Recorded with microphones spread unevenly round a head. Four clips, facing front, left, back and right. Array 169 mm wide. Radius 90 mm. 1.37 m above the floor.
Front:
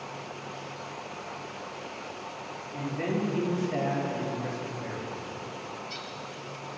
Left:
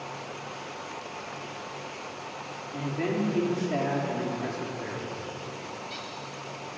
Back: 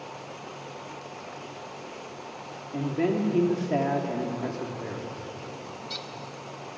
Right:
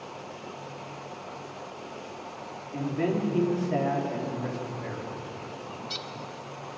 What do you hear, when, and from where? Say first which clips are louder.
2.7 s a man speaking: right 2 dB, back 5 dB; 170° right, 4 m; by 5.2 s 150° left, 4 m
5.7 s a bird: even, even; 110° right, 0.8 m